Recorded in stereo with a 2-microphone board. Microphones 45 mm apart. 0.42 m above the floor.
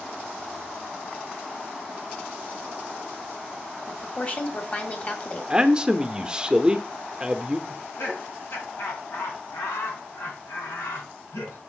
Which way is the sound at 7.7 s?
75° left (ahead or behind).